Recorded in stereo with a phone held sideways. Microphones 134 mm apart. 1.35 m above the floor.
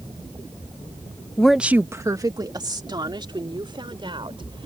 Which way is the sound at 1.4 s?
10° left (ahead or behind).